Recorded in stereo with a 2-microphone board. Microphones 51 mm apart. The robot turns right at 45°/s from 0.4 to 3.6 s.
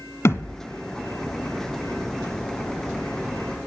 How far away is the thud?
About 1.2 m.